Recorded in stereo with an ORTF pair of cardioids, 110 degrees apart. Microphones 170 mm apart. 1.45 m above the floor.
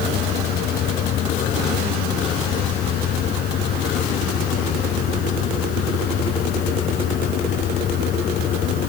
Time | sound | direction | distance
0.0 | a fan | 65° left | ?